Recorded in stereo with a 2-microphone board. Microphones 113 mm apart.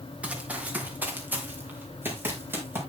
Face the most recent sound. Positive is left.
turn(degrees=-20)  # may be behind; listen again after turning